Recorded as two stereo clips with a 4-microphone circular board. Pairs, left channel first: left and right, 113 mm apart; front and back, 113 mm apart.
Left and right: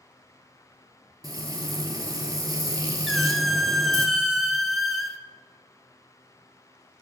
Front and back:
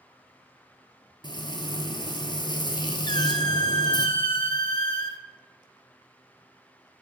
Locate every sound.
1.2 s frying: 40° right, 0.9 m
3.1 s a squeak: straight ahead, 0.6 m